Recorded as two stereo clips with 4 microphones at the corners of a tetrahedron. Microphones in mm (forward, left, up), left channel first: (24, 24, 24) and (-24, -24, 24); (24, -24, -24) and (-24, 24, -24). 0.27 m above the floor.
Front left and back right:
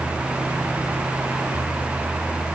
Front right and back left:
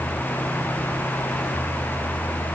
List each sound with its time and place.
Only background noise.